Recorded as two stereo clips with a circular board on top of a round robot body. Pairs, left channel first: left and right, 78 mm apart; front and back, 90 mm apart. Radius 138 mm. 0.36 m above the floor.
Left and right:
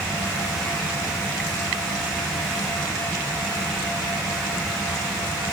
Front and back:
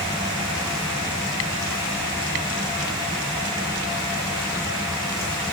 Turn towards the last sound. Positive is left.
No sound to turn to.